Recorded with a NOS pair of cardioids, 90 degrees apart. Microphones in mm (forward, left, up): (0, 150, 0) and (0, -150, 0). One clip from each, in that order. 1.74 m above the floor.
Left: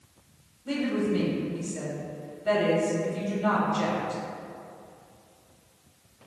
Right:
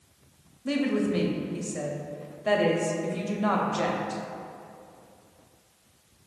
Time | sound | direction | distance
0.7 | a woman speaking | 35° right | 0.8 m